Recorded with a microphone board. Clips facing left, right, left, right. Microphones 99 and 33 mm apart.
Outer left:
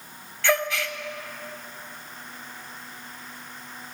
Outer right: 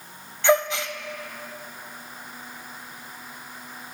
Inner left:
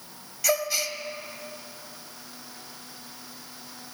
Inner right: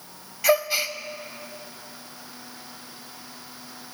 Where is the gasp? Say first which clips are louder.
Outer right 4 dB, inner right 5 dB; 20° right (ahead or behind), 0.5 m.